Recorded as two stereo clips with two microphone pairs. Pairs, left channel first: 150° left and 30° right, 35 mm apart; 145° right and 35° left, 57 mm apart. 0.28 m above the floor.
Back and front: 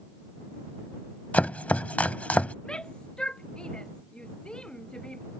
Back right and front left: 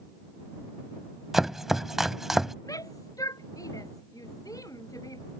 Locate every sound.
1.3 s chopping: 120° left
2.6 s a shout: 145° right